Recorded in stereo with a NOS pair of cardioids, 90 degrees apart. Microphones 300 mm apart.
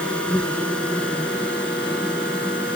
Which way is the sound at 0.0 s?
5° left.